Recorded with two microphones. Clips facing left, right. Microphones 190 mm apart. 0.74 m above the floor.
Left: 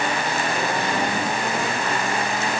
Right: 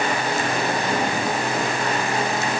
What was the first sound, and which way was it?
Only background noise.